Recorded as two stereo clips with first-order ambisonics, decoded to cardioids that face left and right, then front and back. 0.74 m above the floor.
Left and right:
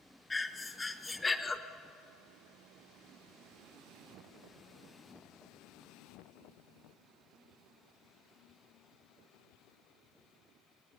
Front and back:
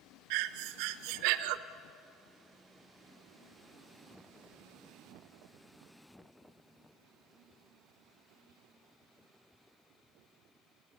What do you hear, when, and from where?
0.3 s breathing: 170° left, 0.9 m